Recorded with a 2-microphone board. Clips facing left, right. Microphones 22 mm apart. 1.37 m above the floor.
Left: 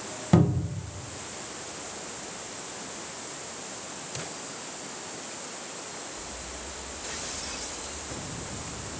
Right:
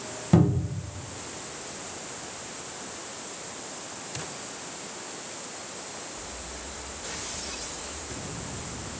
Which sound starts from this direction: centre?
A cupboard door, at 0.3 s.